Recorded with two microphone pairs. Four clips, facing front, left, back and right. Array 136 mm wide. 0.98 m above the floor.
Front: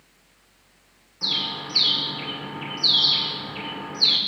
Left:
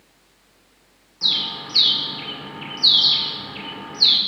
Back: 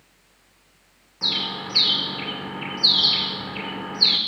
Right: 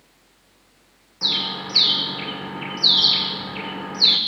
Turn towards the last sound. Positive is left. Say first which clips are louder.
# right 3 dB, back 2 dB
turn(degrees=-125)